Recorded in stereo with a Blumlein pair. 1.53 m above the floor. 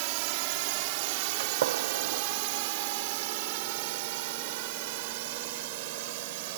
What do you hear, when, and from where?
0.0 s a drone: 45° right; by 6.6 s 50° right
1.4 s a gunshot: 60° right